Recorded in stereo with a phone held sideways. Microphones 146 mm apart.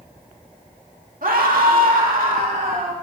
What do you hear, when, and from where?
1.2 s a scream: 80° right, 1.9 m; by 2.9 s 75° right (ahead or behind), 3 m